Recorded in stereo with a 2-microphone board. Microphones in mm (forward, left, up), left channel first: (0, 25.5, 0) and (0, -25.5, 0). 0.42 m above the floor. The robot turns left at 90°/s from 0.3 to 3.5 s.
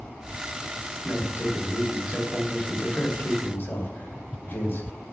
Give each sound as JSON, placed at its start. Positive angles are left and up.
{"t": 1.0, "sound": "a man speaking", "azimuth_deg": -50, "distance_m": 2.0}